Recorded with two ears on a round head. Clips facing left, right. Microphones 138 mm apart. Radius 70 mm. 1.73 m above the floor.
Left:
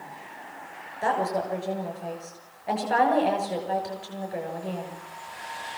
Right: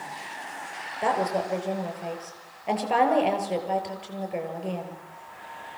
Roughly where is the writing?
I don't hear writing.